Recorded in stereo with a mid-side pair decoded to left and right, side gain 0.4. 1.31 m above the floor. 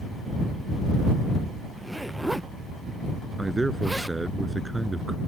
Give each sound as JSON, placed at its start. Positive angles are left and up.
{"t": 1.8, "sound": "a zipper", "azimuth_deg": -5}
{"t": 3.4, "sound": "a man speaking", "azimuth_deg": -15}